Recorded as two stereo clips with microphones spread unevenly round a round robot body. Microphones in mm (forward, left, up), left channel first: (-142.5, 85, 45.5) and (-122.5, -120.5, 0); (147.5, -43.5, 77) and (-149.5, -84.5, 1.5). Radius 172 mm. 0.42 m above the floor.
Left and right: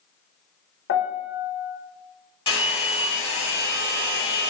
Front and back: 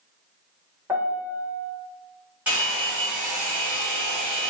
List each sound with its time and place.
0.9 s a piano: 120° left, 0.5 m
2.5 s a hair dryer: 155° left, 1.2 m